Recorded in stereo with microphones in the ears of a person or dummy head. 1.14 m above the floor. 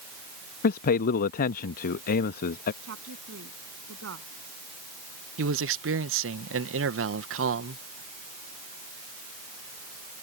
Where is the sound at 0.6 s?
45° left (ahead or behind).